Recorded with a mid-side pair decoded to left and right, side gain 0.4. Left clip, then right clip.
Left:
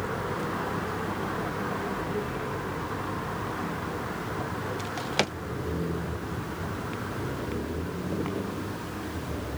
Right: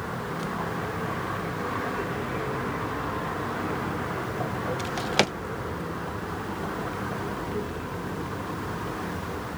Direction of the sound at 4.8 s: 30° right.